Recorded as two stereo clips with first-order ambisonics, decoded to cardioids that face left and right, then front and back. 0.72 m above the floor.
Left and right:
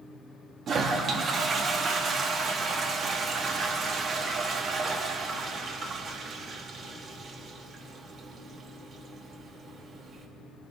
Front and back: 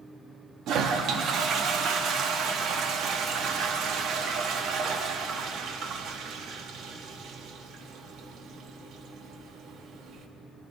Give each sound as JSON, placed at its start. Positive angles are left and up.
{"t": 0.7, "sound": "a toilet flushing", "azimuth_deg": -145, "distance_m": 0.9}